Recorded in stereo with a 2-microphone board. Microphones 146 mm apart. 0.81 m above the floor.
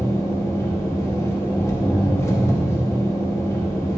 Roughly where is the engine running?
Centre.